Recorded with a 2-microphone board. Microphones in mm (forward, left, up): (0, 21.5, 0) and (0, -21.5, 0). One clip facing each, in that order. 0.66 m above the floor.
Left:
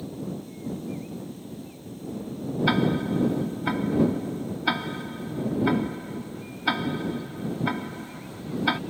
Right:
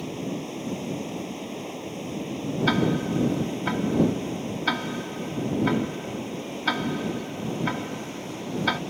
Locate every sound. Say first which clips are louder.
0.0 s running water: right 3 dB; 75° right (ahead or behind)
2.7 s ticking: even; centre (ahead or behind)